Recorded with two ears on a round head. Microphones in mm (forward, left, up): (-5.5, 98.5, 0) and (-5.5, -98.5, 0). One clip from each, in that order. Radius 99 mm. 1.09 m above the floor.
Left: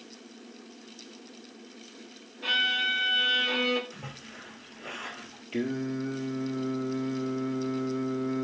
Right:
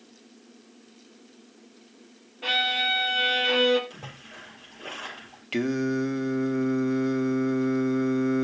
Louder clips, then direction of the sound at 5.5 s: Right 6 dB; 55° right (ahead or behind).